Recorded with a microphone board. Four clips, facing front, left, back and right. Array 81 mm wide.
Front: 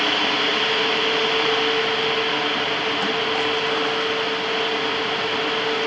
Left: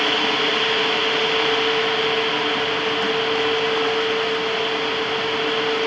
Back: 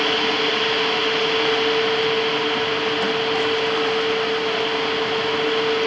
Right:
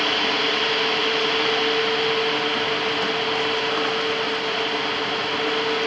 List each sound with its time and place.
Only background noise.